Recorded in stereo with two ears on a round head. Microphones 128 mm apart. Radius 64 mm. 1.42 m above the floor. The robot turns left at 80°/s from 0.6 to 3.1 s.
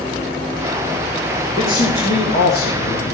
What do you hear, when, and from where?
1.6 s a man speaking: 155° left, 2.5 m; by 3.1 s 30° left, 2.5 m